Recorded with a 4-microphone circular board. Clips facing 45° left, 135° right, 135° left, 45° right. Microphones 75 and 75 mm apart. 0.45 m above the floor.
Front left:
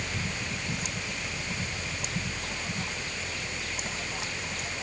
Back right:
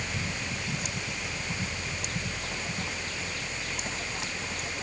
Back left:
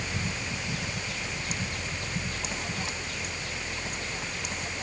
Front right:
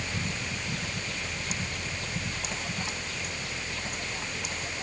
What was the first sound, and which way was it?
Only background noise.